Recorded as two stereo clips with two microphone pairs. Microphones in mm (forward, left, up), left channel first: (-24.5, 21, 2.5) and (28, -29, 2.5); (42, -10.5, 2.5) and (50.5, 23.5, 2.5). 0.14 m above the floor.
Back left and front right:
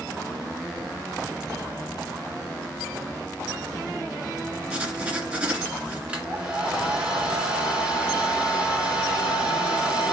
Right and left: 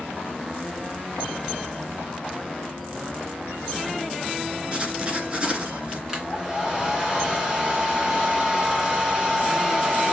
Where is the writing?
20° left, 1.7 m.